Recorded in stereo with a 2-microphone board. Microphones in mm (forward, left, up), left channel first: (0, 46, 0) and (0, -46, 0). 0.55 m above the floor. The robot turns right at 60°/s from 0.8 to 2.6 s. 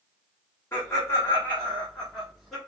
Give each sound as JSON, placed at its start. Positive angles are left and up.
{"t": 0.7, "sound": "laughter", "side_deg": 25, "distance_m": 1.1}